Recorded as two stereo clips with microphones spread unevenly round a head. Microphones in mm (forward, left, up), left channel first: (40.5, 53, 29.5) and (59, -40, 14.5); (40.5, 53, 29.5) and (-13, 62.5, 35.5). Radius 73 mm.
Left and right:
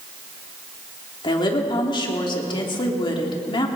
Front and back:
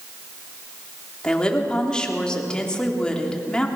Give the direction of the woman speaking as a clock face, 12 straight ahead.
10 o'clock.